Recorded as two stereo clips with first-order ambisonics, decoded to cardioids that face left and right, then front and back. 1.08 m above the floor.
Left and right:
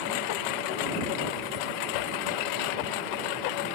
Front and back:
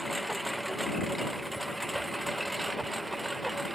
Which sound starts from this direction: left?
A lawn mower, at 0.0 s.